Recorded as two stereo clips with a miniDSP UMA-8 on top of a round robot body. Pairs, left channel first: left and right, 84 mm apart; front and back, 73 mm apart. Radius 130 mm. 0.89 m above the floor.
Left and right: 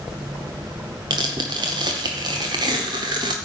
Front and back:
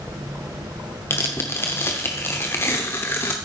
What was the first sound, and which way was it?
Tearing paper, 55° right.